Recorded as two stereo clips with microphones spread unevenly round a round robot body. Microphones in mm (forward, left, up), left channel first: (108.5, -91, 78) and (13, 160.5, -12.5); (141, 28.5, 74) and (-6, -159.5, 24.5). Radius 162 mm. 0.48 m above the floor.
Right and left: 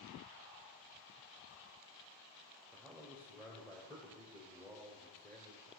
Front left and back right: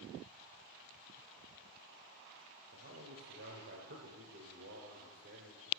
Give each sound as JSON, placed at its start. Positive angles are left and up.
{"t": 2.7, "sound": "a man speaking", "azimuth_deg": -165, "distance_m": 1.8}